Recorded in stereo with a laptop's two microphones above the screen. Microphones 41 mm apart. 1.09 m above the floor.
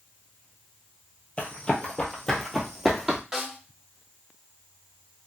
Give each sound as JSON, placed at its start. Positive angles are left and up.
{"t": 1.4, "sound": "running footsteps", "side_deg": 30, "distance_m": 1.4}
{"t": 3.3, "sound": "a snare drum", "side_deg": -15, "distance_m": 1.2}